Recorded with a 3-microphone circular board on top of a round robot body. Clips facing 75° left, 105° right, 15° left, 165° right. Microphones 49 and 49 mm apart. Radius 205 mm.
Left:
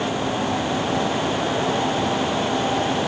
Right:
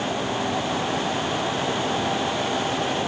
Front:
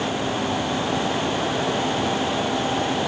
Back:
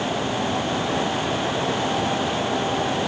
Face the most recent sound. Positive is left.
No sound to turn to.